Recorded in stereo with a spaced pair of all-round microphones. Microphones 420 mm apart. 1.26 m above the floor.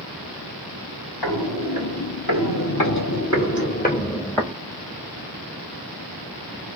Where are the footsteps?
65° left (ahead or behind), 3 m; by 4.5 s centre (ahead or behind), 1.5 m.